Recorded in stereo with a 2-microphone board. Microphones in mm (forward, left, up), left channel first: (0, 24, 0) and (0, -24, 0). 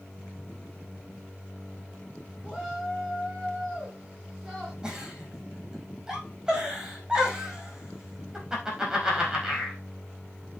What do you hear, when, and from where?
2.4 s a shout: 10° right (ahead or behind), 3 m
4.8 s a giggle: 15° right (ahead or behind), 5 m